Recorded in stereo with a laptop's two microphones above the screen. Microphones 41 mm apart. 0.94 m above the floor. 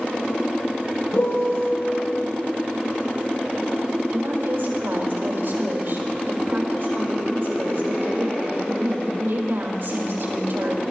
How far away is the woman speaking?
About 4.5 m.